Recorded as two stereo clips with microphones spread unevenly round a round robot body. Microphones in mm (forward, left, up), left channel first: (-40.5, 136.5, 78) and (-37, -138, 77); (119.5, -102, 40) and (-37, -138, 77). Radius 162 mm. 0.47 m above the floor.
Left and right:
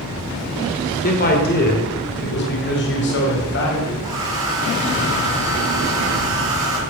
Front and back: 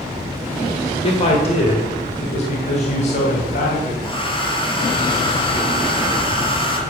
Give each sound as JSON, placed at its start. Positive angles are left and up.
{"t": 1.0, "sound": "a man speaking", "azimuth_deg": 40, "distance_m": 2.0}
{"t": 4.0, "sound": "a hair dryer", "azimuth_deg": -45, "distance_m": 4.0}